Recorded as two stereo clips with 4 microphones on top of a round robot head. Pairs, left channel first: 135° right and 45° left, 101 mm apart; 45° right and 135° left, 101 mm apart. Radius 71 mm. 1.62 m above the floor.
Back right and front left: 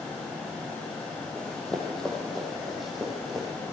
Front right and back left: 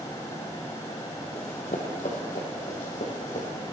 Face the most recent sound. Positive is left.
turn(degrees=-40)